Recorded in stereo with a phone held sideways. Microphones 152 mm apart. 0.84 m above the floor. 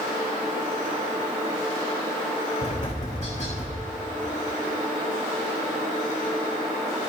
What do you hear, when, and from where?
2.6 s tapping: 55° left (ahead or behind), 6.5 m